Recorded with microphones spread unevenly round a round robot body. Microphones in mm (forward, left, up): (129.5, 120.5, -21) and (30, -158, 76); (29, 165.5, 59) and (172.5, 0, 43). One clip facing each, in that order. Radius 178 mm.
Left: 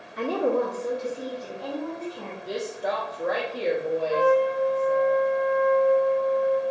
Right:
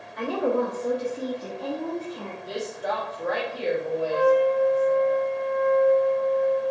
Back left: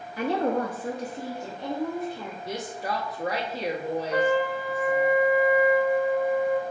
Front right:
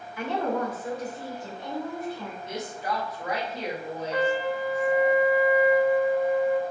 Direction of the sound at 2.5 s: 115° left.